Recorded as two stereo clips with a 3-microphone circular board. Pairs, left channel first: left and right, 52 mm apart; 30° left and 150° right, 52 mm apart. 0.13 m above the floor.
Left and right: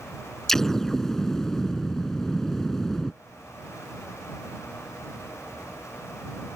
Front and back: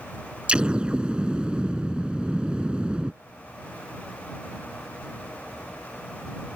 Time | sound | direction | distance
0.5 | an explosion | 165° left | ?